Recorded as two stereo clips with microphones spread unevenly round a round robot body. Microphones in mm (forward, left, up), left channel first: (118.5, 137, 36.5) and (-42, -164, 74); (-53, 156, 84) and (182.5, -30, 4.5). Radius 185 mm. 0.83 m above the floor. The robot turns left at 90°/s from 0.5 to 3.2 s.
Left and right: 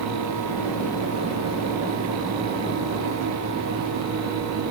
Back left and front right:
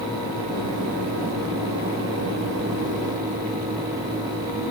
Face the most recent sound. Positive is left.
No sound to turn to.